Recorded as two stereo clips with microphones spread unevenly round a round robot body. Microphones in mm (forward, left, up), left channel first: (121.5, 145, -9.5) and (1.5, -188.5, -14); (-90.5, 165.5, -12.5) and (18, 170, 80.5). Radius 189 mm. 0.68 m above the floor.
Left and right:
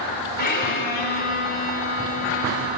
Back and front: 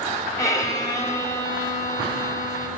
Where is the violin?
135° left, 4 m.